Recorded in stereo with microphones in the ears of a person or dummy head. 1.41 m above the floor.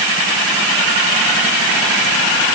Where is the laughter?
I don't hear laughter.